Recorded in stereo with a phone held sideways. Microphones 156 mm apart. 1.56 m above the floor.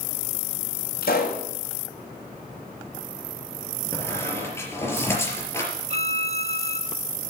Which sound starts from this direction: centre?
A squeak, at 3.9 s.